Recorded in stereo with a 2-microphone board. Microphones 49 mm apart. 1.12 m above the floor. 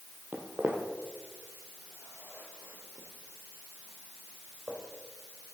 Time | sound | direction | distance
0.3 | footsteps | 45° right (ahead or behind) | 1.6 m